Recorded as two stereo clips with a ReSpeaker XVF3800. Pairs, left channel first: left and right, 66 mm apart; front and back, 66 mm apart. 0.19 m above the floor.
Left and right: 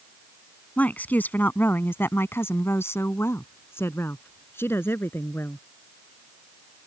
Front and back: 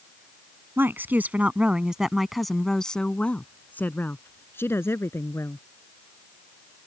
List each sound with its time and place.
0.8 s a woman speaking: 145° left; by 5.7 s 40° left